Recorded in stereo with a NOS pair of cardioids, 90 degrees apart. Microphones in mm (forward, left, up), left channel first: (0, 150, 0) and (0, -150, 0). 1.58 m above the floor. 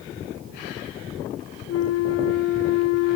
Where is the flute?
55° left, 0.6 m.